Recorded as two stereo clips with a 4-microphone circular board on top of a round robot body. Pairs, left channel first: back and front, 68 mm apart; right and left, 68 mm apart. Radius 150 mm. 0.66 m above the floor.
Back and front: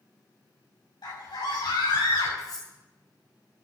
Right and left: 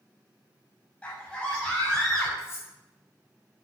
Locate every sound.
1.0 s a scream: 165° right, 7 m; by 2.3 s 175° right, 8 m
2.4 s cutlery clinking: 145° right, 4.5 m